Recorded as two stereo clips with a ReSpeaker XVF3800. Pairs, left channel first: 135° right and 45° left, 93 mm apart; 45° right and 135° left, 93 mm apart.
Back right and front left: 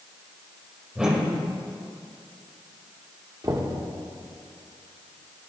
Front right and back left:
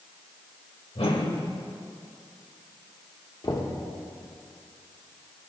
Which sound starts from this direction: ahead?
Knocking, at 3.4 s.